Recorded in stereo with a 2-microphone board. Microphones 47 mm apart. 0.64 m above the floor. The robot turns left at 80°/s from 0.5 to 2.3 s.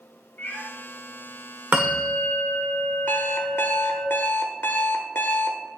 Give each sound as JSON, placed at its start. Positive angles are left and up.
{"t": 0.4, "sound": "a cat meowing", "side_deg": 50, "distance_m": 3.0}
{"t": 1.7, "sound": "a bell", "azimuth_deg": -140, "distance_m": 1.7}
{"t": 3.1, "sound": "an alarm clock", "side_deg": 45, "distance_m": 0.8}